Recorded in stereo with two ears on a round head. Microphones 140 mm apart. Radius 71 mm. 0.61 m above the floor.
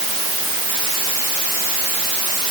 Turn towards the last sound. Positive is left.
No sound to turn to.